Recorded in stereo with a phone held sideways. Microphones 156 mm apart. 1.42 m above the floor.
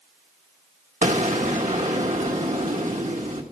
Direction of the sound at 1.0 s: 50° right (ahead or behind).